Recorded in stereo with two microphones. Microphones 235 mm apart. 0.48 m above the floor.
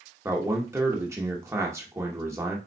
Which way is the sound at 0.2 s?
10° right (ahead or behind).